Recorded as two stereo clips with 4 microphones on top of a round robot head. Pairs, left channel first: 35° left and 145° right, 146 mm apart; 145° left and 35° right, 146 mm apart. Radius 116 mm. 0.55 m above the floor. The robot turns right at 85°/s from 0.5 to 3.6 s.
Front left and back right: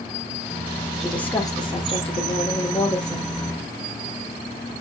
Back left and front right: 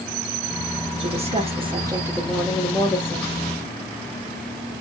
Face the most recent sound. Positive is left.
turn(degrees=165)